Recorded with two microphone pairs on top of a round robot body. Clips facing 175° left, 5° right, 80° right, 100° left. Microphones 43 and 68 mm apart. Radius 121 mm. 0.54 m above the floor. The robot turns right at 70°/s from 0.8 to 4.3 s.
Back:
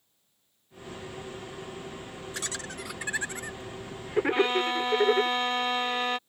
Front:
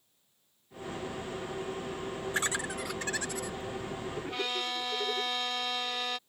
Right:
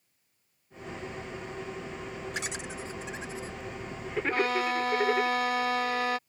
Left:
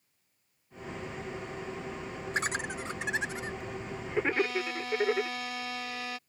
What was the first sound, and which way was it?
Laughter, 45° left.